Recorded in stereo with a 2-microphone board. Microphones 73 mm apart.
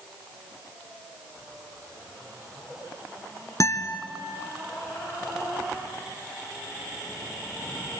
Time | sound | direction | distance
3.6 | a guitar | 50° left (ahead or behind) | 1.2 m